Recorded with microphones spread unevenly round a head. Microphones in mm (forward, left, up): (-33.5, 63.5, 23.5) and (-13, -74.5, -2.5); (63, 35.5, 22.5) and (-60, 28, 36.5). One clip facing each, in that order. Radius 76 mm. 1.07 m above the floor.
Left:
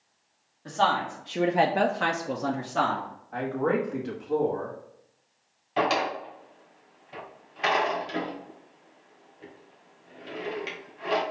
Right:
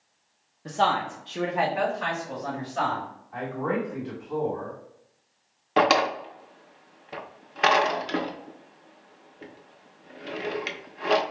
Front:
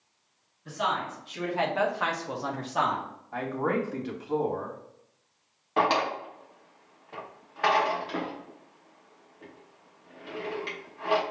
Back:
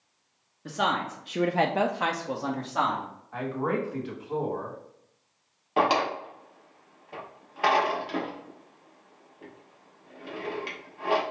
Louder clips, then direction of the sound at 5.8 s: Right 4 dB, back 1 dB; 100° right.